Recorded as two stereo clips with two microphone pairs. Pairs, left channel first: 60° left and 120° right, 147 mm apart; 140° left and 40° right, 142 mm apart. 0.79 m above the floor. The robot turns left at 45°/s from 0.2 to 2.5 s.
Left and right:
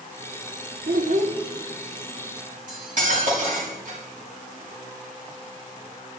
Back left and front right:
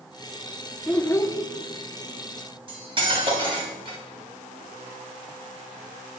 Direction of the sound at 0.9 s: 135° right.